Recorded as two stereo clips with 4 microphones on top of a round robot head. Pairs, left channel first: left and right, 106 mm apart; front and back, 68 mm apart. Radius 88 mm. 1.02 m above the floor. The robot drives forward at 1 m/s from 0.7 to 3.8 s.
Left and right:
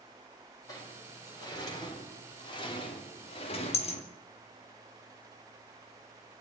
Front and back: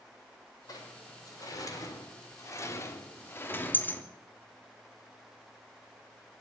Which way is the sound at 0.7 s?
30° left.